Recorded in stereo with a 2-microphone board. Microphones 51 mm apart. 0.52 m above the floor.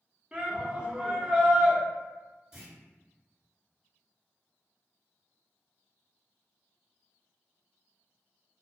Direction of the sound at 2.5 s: 10° right (ahead or behind).